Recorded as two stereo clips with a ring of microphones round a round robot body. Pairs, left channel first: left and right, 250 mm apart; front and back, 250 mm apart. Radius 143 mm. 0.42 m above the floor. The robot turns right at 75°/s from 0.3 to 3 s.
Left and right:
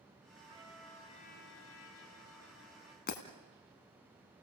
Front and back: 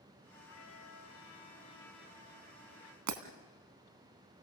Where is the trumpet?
25° right, 2 m; by 3.0 s 165° left, 2 m.